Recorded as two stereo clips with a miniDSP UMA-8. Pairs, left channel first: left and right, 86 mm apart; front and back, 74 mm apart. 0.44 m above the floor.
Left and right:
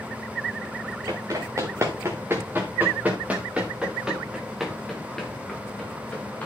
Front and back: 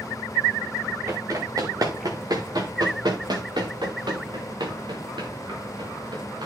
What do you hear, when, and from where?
1.1 s running footsteps: 140° right, 3.5 m; by 6.5 s 160° left, 3.5 m